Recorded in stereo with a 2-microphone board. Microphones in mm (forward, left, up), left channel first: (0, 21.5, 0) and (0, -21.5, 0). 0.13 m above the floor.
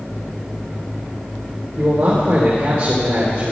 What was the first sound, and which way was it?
A man speaking, 60° right (ahead or behind).